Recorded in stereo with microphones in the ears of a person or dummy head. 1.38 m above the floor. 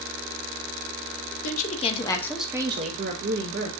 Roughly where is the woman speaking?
Left.